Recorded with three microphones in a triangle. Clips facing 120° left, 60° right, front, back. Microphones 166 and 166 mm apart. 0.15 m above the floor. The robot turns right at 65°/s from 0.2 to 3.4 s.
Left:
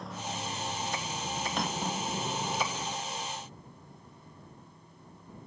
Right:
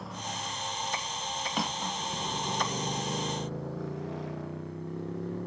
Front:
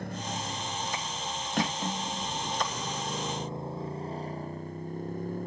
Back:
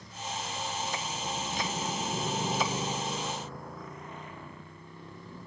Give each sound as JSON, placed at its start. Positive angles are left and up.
{"t": 0.0, "sound": "a motorcycle", "azimuth_deg": 30}
{"t": 1.6, "sound": "cutlery clinking", "azimuth_deg": 25}